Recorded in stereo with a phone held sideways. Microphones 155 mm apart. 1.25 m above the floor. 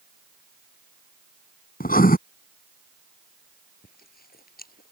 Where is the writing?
70° left (ahead or behind).